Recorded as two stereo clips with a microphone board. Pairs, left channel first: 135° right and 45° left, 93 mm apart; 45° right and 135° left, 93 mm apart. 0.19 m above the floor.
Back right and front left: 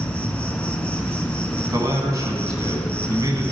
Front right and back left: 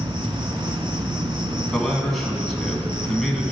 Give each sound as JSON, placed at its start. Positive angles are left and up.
{"t": 0.0, "sound": "an insect", "azimuth_deg": 150, "distance_m": 0.8}
{"t": 1.7, "sound": "a man speaking", "azimuth_deg": 40, "distance_m": 1.3}